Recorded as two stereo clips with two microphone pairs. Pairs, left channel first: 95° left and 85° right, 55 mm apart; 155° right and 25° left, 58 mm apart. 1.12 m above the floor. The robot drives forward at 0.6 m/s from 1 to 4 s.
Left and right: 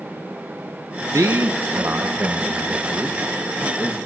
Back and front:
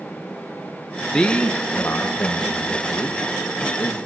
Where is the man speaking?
80° right, 0.9 m; by 4.0 s 155° right, 1.8 m.